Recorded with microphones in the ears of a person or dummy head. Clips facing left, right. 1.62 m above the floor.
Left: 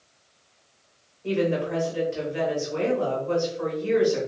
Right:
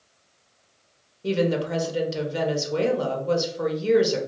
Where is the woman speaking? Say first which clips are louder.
Right 1 dB; 50° right (ahead or behind), 0.9 m.